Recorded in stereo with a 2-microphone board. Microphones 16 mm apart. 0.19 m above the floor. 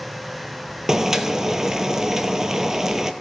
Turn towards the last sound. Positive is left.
turn(degrees=-25)  # may be behind; listen again after turning